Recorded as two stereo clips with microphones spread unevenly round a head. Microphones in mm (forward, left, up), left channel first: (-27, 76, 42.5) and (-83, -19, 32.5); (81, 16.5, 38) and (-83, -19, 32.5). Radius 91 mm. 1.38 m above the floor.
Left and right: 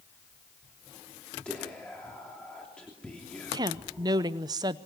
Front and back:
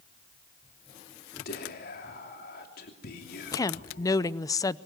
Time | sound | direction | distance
1.4 | whispering | 25° right | 3 m
3.5 | a woman speaking | 60° right | 0.6 m